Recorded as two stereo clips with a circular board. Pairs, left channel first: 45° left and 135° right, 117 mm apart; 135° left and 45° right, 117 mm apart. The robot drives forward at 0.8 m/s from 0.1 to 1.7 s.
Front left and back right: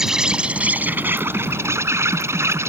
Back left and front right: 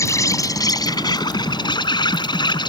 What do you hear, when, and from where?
0.0 s an insect: 145° left; by 2.7 s 165° left